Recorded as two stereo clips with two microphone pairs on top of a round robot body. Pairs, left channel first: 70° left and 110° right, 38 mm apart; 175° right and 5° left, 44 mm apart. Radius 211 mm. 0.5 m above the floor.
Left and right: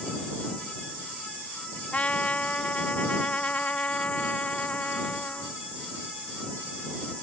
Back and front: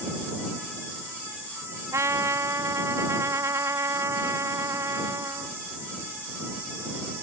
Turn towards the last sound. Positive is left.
turn(degrees=10)